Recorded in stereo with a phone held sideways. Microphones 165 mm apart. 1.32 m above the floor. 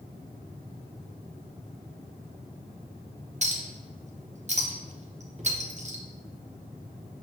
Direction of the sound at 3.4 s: 45° right (ahead or behind).